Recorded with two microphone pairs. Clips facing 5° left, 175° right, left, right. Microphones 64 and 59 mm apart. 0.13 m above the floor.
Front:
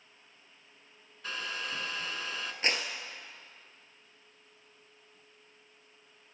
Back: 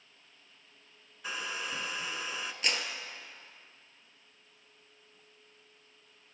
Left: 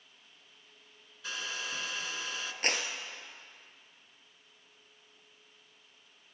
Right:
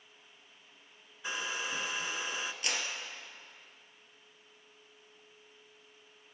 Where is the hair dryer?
115° right, 0.9 m.